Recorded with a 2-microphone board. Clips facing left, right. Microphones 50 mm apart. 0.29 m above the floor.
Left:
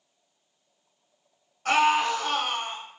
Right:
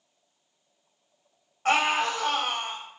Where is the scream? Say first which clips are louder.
Left 2 dB; 30° right (ahead or behind), 1.4 m; by 2.8 s 50° right (ahead or behind), 2.0 m.